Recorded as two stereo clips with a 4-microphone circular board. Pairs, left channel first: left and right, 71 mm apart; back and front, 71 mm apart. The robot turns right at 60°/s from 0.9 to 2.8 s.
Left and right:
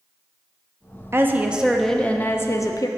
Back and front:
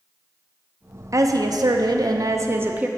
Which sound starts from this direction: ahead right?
A woman speaking, at 1.1 s.